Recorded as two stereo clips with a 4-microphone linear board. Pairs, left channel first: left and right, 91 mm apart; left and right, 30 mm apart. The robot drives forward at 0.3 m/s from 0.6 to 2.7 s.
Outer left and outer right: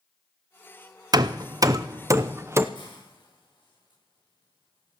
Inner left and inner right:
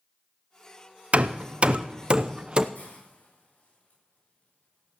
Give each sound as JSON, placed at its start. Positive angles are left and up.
{"t": 1.1, "sound": "hammering", "side_deg": -45, "distance_m": 0.6}
{"t": 2.8, "sound": "a hiss", "side_deg": 60, "distance_m": 8.0}